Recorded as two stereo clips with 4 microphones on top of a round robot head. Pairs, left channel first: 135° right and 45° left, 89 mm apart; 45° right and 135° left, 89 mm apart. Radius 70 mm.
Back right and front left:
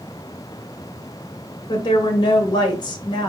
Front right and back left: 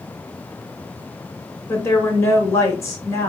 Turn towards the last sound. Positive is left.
turn(degrees=-100)